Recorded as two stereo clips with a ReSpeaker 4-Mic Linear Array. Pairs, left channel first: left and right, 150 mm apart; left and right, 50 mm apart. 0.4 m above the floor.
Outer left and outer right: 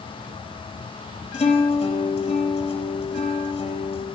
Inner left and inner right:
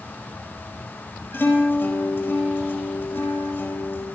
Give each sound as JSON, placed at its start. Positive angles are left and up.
{"t": 1.3, "sound": "a guitar", "side_deg": 45, "distance_m": 4.5}